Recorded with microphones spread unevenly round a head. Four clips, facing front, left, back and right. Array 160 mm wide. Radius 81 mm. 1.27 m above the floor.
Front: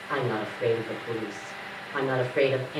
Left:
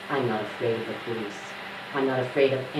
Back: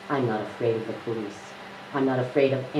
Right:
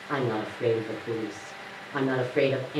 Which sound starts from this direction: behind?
A woman speaking, at 0.1 s.